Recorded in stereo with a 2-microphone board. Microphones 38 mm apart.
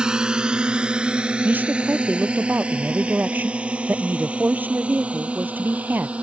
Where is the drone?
20° right (ahead or behind); by 6.2 s 30° right (ahead or behind).